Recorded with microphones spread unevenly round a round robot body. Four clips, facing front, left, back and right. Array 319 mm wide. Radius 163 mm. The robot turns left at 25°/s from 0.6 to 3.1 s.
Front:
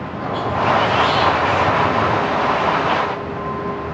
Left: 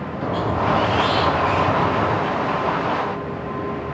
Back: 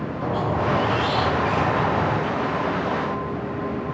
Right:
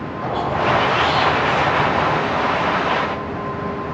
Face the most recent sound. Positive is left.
turn(degrees=35)